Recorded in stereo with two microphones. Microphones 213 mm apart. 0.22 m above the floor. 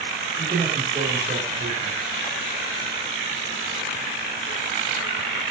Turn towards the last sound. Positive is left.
turn(degrees=-35)  # may be behind; listen again after turning